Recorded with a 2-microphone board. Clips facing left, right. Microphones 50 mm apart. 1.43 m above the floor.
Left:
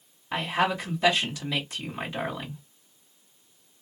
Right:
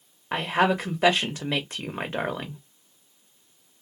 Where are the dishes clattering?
I don't hear dishes clattering.